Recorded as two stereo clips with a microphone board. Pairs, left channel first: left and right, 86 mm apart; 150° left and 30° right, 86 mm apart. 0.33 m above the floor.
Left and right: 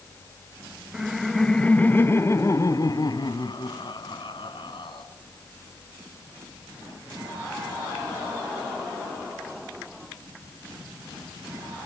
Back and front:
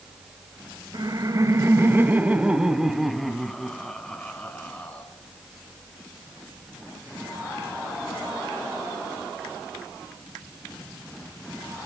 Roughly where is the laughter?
Ahead.